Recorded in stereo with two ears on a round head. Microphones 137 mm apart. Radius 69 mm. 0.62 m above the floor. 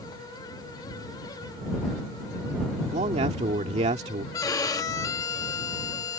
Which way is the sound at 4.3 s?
25° left (ahead or behind).